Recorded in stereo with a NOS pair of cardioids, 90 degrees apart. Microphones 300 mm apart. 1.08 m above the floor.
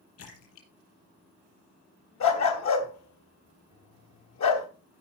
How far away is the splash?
About 5 m.